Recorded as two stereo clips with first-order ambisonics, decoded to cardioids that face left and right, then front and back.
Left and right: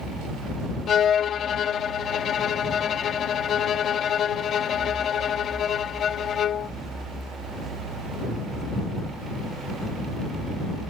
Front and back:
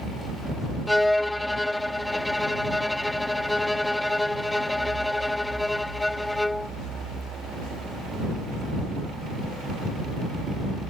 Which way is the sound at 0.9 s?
85° left.